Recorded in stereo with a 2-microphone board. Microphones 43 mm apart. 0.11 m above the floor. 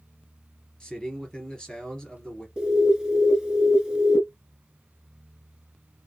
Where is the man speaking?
20° left (ahead or behind), 1.9 m.